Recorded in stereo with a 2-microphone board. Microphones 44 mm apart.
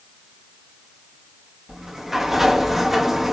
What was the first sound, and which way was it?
A sliding door, 10° right (ahead or behind).